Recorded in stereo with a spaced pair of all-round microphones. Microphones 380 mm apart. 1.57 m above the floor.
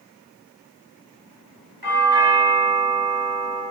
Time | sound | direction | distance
1.8 | a doorbell | 85° right | 6.5 m